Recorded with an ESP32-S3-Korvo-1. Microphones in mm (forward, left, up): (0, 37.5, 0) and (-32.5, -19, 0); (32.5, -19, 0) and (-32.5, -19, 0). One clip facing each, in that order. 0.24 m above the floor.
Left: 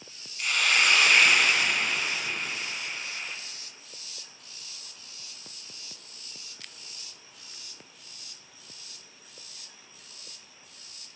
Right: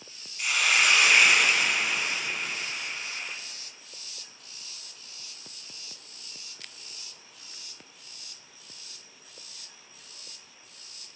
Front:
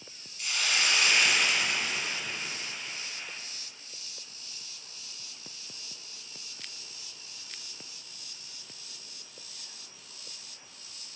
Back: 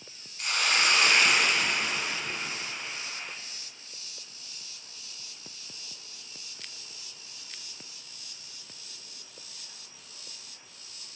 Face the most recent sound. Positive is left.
turn(degrees=155)